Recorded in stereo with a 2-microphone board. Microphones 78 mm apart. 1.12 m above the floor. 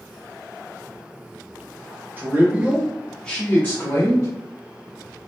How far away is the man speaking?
About 0.9 m.